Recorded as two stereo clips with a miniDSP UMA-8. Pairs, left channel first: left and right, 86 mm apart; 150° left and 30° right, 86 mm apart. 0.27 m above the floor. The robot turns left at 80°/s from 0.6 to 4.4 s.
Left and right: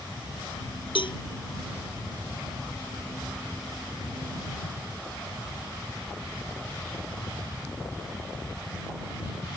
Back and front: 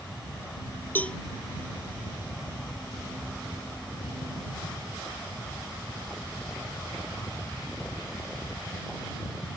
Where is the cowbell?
85° left; by 1.2 s 65° left.